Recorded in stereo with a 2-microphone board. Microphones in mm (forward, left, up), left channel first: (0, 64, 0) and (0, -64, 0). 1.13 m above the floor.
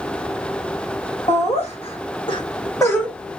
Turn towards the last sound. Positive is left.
turn(degrees=10)  # may be behind; listen again after turning